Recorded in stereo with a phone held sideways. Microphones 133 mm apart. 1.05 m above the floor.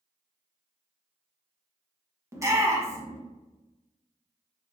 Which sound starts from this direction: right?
A shout, at 2.3 s.